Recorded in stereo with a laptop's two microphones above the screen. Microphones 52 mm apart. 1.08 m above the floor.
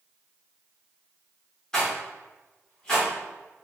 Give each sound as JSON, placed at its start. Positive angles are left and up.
{"t": 1.7, "sound": "a rattle", "side_deg": 15, "distance_m": 1.1}